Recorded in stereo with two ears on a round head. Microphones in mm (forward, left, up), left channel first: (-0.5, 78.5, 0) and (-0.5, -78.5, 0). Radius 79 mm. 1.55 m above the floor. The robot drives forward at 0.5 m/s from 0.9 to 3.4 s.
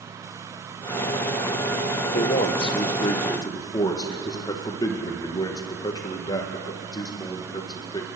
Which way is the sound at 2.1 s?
40° left (ahead or behind).